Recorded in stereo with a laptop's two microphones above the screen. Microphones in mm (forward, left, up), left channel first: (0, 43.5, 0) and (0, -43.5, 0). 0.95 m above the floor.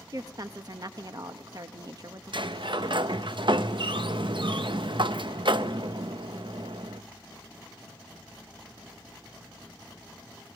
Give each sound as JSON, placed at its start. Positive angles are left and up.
{"t": 0.1, "sound": "a woman speaking", "side_deg": -45, "distance_m": 0.7}
{"t": 2.3, "sound": "a sliding door", "side_deg": -65, "distance_m": 0.6}